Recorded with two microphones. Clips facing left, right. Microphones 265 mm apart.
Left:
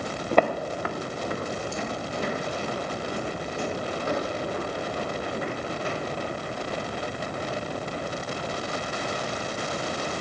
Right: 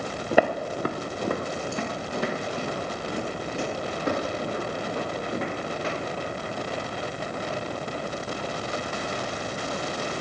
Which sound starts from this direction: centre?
Footsteps, at 0.3 s.